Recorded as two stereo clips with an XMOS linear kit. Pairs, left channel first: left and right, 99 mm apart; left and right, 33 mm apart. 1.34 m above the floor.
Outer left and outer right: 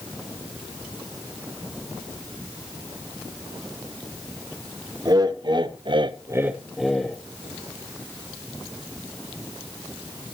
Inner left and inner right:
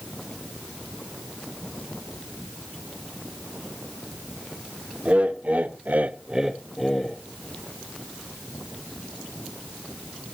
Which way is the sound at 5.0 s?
40° right (ahead or behind).